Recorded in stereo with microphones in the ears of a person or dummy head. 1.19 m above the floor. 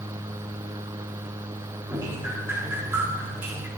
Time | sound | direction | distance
1.9 | dripping | 10° right (ahead or behind) | 2 m